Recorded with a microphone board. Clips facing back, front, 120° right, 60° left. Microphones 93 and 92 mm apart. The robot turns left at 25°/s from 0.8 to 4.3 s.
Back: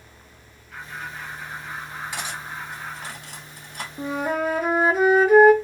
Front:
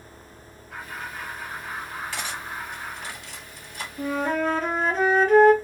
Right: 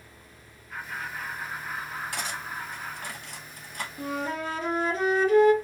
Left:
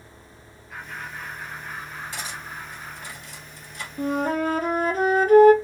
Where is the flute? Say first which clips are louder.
Even, left 8 dB; 105° left, 0.6 m; by 5.5 s 100° left, 0.6 m.